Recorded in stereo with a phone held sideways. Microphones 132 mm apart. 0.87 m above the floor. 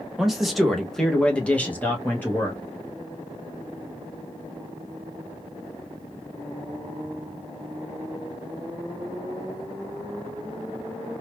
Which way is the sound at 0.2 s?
5° right (ahead or behind).